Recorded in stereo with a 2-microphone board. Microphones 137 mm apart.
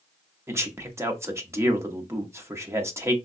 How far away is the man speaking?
About 0.7 m.